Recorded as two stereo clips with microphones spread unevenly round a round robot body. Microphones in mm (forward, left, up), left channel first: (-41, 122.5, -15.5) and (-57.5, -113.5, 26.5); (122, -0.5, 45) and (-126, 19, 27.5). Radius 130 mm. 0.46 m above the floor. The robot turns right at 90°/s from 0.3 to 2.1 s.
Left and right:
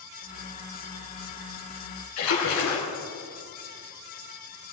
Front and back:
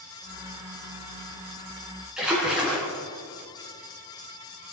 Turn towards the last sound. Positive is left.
turn(degrees=90)